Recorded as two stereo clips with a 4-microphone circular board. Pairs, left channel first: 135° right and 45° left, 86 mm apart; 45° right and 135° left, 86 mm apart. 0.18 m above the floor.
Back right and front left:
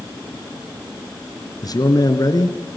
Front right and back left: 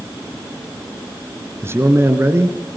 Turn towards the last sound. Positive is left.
turn(degrees=-170)